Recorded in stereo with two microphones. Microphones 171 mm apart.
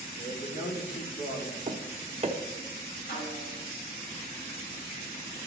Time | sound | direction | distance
0.2 | a man speaking | 75° left (ahead or behind) | 2.5 m
1.7 | tapping | 40° right (ahead or behind) | 0.9 m
3.1 | a snare drum | 75° left (ahead or behind) | 3.5 m